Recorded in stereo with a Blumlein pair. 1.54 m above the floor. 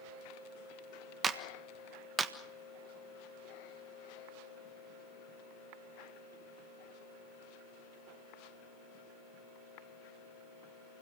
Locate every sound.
1.2 s a clap: 20° right, 1.5 m